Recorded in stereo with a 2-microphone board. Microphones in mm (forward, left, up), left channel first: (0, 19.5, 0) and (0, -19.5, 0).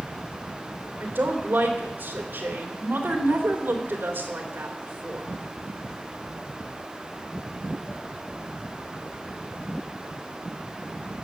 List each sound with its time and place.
1.0 s a woman speaking: 55° right (ahead or behind), 3 m